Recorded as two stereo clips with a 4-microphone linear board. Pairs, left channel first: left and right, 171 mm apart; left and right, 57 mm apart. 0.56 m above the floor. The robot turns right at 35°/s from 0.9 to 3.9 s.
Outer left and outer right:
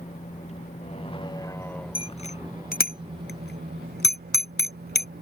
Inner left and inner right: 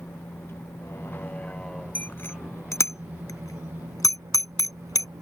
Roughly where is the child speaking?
I don't hear a child speaking.